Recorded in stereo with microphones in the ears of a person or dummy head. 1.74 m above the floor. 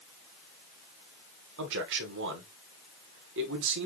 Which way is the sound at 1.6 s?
65° right (ahead or behind).